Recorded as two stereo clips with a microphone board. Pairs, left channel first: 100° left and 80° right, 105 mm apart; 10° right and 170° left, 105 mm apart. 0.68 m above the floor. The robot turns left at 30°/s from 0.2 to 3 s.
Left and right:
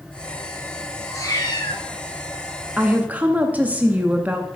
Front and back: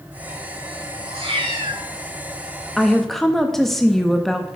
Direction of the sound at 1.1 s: 160° left.